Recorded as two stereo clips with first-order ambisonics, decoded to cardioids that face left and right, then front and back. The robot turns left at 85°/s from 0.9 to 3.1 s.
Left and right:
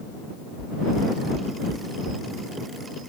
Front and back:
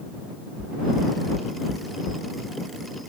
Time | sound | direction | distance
0.6 | knocking | 55° left | ?